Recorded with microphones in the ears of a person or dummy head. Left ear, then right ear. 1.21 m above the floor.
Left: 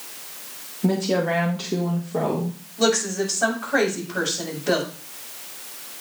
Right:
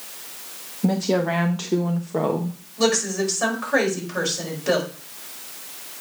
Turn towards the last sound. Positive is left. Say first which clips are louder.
# even
turn(degrees=-75)  # may be behind; listen again after turning